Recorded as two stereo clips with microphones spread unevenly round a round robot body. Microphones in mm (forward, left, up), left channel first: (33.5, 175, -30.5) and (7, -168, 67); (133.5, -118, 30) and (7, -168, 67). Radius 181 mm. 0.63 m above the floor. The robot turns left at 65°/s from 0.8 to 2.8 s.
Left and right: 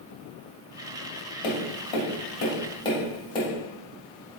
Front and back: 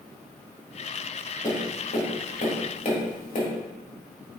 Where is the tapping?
100° left, 2 m; by 3.5 s 10° left, 2 m.